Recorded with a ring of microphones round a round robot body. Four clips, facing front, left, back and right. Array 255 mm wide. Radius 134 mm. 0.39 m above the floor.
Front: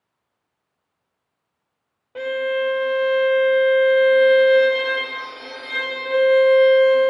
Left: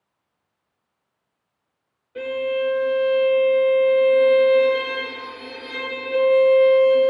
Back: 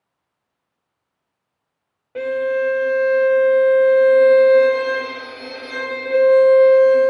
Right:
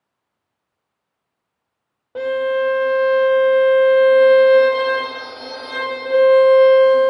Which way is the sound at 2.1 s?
115° right.